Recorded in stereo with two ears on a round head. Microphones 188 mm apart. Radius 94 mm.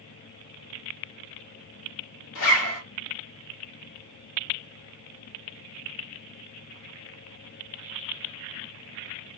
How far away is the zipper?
About 1.6 m.